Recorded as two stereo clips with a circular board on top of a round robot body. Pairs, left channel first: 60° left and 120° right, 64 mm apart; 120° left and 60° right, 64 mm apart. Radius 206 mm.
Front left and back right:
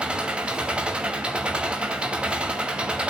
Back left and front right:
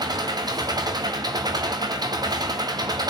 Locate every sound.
0.0 s an engine running: 45° right, 1.4 m